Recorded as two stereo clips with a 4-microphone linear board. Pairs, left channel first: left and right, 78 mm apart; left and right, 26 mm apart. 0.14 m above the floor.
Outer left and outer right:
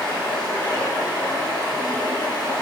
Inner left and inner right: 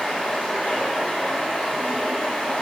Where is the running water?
65° left (ahead or behind), 1.4 m.